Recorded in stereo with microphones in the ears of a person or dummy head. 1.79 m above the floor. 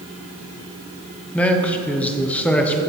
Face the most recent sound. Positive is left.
turn(degrees=5)  # may be behind; listen again after turning